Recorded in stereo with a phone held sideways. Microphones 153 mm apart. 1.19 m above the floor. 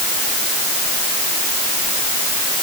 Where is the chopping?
No chopping in this recording.